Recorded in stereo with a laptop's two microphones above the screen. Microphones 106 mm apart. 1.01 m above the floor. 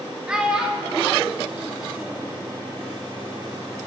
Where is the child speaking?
10° right (ahead or behind), 1.2 m.